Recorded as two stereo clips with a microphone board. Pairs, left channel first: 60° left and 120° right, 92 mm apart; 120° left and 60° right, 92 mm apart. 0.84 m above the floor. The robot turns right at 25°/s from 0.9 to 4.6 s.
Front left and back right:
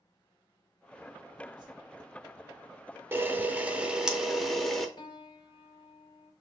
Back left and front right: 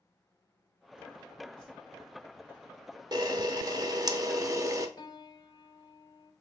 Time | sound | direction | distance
1.6 | a whoosh | 160° right | 1.7 m
3.1 | a camera shutter | 65° right | 0.6 m
5.0 | a piano | 85° left | 0.6 m